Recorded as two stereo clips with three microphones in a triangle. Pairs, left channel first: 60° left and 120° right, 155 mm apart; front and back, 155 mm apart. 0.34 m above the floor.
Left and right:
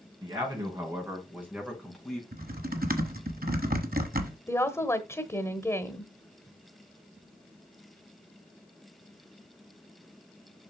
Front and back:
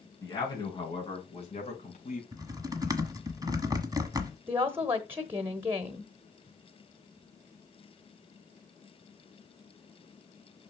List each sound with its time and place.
0.2 s a man speaking: 65° right, 4.5 m; by 2.2 s 25° right, 4 m
2.3 s typing on a keyboard: 115° right, 1.1 m
4.5 s a woman speaking: 115° left, 1.0 m